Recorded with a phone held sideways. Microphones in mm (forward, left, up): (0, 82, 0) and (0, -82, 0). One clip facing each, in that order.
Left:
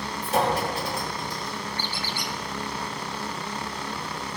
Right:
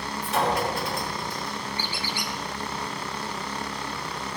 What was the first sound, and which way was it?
A clink, 35° left (ahead or behind).